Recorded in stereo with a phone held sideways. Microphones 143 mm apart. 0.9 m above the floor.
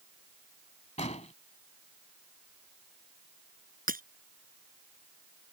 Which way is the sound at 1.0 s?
55° left (ahead or behind).